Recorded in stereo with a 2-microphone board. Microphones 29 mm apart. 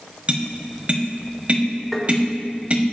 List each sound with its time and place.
0.3 s tapping: 40° right (ahead or behind), 1.3 m
1.9 s tapping: 5° left (ahead or behind), 2 m